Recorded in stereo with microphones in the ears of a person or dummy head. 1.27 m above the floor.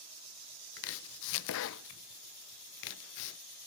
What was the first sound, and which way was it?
Chopping, 75° left (ahead or behind).